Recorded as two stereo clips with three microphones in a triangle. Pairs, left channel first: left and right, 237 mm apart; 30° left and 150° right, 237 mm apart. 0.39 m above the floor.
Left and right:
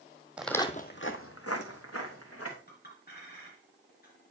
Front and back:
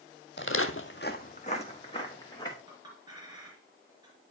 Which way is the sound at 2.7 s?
140° left.